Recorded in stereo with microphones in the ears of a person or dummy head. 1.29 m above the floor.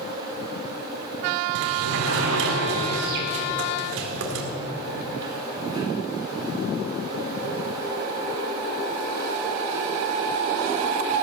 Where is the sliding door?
70° right (ahead or behind), 1.7 m.